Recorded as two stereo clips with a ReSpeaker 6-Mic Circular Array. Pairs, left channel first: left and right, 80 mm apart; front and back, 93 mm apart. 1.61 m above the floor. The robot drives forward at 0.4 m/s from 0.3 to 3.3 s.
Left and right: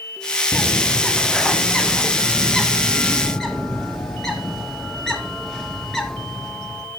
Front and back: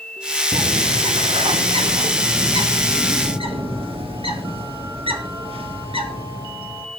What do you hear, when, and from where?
0.5 s a bird: 165° left, 1.0 m; by 6.9 s 175° left, 2 m